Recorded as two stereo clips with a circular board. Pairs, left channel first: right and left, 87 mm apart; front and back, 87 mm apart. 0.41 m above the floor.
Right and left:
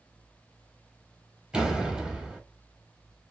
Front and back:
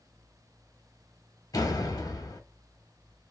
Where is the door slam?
15° left, 0.8 m.